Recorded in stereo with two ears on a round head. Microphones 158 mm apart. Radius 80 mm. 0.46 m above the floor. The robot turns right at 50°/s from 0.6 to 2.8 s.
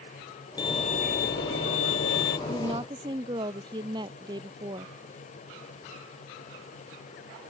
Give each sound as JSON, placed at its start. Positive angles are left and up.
{"t": 0.6, "sound": "a violin", "azimuth_deg": 25}
{"t": 2.5, "sound": "a woman speaking", "side_deg": -40}